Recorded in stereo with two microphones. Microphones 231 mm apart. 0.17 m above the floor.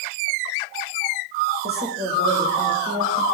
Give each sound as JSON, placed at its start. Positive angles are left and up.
{"t": 1.6, "sound": "a woman speaking", "side_deg": -45, "distance_m": 7.0}